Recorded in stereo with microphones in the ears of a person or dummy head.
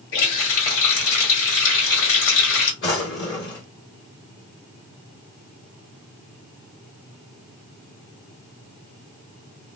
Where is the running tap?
60° left (ahead or behind), 1.8 m.